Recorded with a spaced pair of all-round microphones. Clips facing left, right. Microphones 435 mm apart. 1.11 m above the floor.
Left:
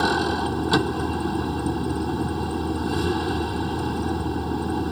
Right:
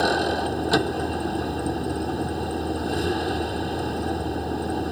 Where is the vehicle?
20° left (ahead or behind).